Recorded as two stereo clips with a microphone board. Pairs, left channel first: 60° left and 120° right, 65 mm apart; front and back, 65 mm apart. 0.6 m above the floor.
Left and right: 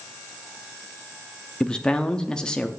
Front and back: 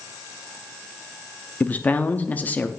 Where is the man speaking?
Straight ahead, 0.6 m.